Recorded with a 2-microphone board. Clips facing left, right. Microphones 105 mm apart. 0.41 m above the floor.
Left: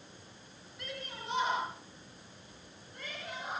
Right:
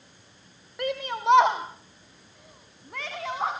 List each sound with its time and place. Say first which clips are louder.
0.8 s a shout: right 16 dB; 60° right (ahead or behind), 2 m; by 3.5 s 70° right (ahead or behind), 4 m